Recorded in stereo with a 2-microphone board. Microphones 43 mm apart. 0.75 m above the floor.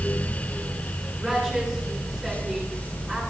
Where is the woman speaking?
10° left (ahead or behind), 7.5 m.